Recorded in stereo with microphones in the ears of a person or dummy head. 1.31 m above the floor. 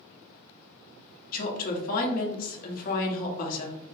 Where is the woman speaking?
45° left (ahead or behind), 0.9 m.